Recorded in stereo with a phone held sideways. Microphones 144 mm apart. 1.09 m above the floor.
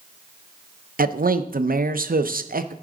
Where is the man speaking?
80° right, 0.5 m.